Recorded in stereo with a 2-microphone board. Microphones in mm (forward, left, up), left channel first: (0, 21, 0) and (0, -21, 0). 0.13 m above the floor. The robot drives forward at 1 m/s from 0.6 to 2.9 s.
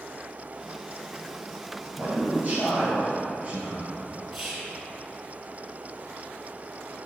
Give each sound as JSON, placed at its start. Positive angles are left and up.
{"t": 2.0, "sound": "a man speaking", "side_deg": -45, "distance_m": 2.5}
{"t": 4.3, "sound": "whispering", "side_deg": -5, "distance_m": 1.7}